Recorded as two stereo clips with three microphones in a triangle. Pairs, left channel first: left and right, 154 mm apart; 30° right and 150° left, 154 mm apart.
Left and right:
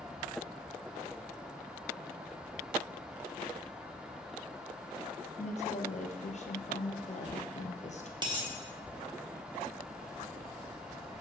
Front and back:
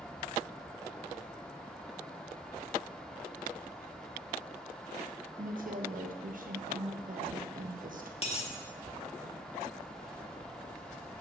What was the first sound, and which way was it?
A woman speaking, 125° left.